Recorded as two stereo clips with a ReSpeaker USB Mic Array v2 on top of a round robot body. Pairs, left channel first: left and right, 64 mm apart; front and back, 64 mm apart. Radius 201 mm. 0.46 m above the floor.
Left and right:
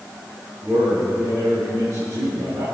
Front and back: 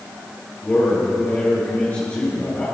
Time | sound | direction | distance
0.6 | a man speaking | 60° right | 6.5 m